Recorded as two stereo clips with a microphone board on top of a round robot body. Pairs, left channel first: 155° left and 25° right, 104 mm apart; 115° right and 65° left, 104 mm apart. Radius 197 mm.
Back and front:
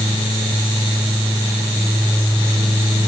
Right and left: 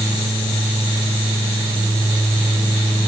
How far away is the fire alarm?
No fire alarm in this recording.